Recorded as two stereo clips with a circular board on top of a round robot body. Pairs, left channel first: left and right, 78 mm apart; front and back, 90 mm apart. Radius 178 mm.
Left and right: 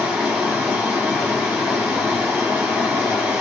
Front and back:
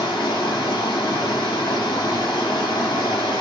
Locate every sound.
0.0 s running water: 20° right, 2.5 m